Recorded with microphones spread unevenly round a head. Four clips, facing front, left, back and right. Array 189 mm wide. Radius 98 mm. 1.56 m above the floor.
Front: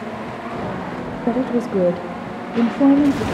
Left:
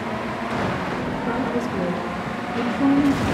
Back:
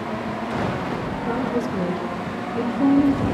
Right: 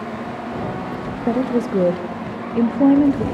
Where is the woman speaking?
35° right, 0.8 m.